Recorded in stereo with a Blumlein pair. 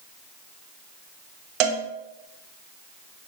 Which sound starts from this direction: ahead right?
A cowbell, at 1.6 s.